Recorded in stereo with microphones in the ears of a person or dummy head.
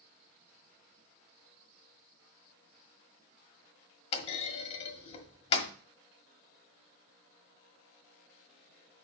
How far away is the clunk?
About 1.4 m.